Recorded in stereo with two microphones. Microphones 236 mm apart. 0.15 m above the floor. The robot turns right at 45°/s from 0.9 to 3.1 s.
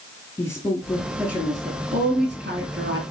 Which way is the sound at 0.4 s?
10° left (ahead or behind).